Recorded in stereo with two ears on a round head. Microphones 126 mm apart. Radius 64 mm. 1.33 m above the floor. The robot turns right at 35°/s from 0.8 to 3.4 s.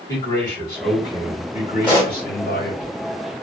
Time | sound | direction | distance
0.1 | a man speaking | 20° left | 2.5 m
1.8 | a pop | 35° left (ahead or behind) | 1.6 m